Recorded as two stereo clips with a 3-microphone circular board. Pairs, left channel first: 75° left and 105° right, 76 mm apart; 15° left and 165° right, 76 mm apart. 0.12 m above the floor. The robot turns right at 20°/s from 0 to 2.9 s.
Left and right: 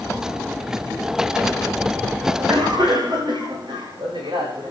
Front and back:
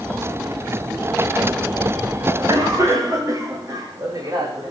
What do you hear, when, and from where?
2.3 s a cough: 130° right, 8 m; by 4.7 s 120° right, 8 m